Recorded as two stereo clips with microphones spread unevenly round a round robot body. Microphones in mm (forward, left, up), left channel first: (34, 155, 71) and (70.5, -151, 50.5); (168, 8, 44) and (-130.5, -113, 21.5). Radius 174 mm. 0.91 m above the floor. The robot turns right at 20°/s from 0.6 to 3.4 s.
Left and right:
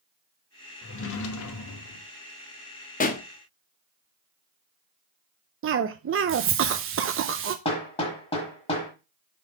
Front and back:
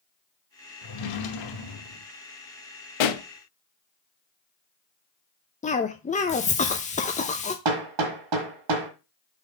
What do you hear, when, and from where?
0.8 s a drawer: 45° left, 0.9 m; by 2.1 s 70° left, 0.9 m
3.0 s a pop: 30° left, 0.9 m; by 3.2 s 35° left, 0.9 m
5.6 s a cough: 45° right, 0.6 m
7.7 s hammering: 170° left, 1.3 m